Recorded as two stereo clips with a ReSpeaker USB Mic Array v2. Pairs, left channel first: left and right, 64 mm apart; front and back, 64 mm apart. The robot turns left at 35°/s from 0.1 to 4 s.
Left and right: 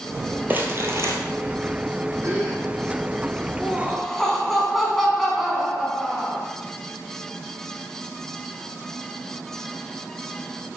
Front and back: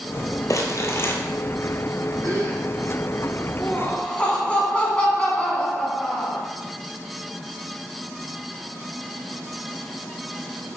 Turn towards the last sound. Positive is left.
turn(degrees=10)